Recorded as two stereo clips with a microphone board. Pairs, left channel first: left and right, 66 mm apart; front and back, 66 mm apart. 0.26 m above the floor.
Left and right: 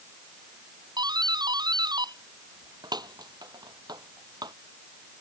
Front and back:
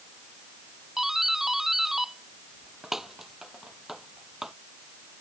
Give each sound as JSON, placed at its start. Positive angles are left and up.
{"t": 1.0, "sound": "a doorbell", "azimuth_deg": -100}